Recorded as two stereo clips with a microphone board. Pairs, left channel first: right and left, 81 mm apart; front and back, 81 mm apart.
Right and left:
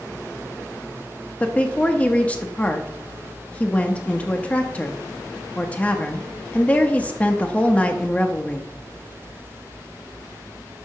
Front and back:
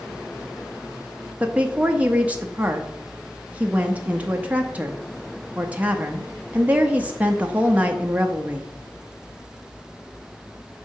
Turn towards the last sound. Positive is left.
turn(degrees=-135)